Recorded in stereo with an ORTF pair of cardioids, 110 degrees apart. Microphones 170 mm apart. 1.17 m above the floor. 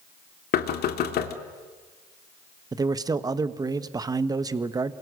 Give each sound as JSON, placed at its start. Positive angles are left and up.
{"t": 0.5, "sound": "knocking", "azimuth_deg": 70, "distance_m": 2.0}
{"t": 2.7, "sound": "a man speaking", "azimuth_deg": -20, "distance_m": 1.4}